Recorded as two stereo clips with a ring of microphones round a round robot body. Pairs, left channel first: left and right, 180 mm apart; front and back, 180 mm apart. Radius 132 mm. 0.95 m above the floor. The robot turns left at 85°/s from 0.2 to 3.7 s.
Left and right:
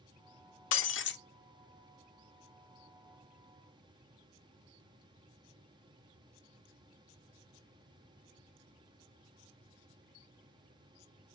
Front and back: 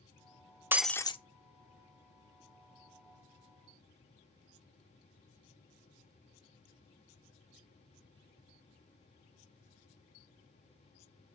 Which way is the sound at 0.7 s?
100° left.